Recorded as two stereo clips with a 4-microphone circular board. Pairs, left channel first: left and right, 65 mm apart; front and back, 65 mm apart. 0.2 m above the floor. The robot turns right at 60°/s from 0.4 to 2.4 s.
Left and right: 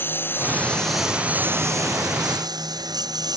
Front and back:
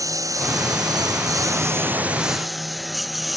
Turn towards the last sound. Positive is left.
turn(degrees=-90)